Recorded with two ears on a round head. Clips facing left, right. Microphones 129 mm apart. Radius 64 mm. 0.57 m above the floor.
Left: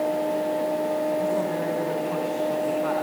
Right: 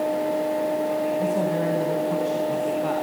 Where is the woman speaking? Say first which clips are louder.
Right 2 dB; 20° right (ahead or behind), 3 m; by 3.0 s 25° right (ahead or behind), 4.5 m.